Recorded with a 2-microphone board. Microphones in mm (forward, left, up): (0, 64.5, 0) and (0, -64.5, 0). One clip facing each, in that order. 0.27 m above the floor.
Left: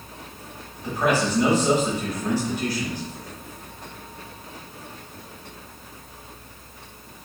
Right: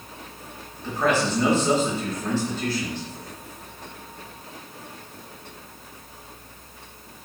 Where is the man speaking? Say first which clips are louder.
Even; 15° left (ahead or behind), 1.2 m.